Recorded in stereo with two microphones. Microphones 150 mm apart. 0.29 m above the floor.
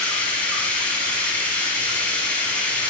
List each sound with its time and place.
0.0 s running water: 10° left (ahead or behind), 1.0 m